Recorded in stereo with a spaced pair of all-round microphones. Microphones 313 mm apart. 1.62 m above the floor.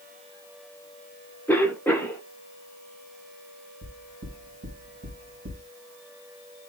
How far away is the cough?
About 1.2 m.